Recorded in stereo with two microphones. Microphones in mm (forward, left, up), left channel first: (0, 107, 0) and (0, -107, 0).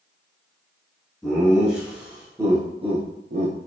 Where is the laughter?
Centre (ahead or behind), 1.5 m; by 3.7 s 75° right (ahead or behind), 0.5 m.